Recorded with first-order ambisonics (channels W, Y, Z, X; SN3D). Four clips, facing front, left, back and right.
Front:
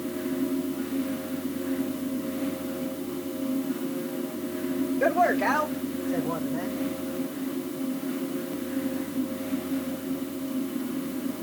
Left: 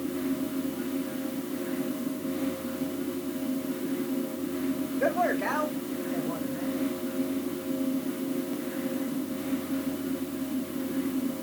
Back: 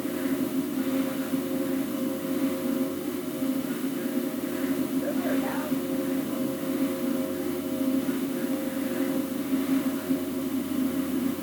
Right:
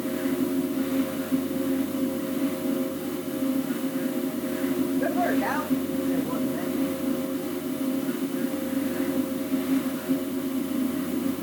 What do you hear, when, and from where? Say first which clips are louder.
5.0 s a man speaking: left 2 dB, front 5 dB; straight ahead, 1.6 m; by 6.8 s 40° right, 2.5 m